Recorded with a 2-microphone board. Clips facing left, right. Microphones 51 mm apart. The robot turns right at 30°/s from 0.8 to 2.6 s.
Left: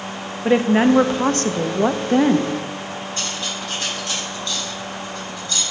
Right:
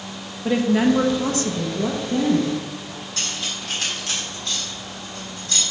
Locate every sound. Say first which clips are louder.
0.5 s a woman speaking: left 3 dB; 35° left, 0.6 m; by 2.6 s 90° left, 0.6 m
3.2 s cutlery clinking: right 1 dB; 80° right, 3.5 m